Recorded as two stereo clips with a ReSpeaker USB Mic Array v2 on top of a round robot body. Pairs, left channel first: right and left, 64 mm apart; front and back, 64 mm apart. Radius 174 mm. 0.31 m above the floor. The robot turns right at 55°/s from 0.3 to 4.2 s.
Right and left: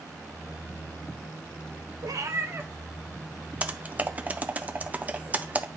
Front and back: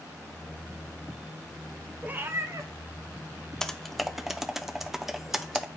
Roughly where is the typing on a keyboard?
Left.